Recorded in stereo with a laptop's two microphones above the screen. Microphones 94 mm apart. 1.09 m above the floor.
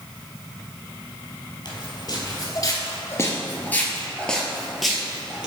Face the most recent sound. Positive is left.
turn(degrees=-10)  # may be behind; listen again after turning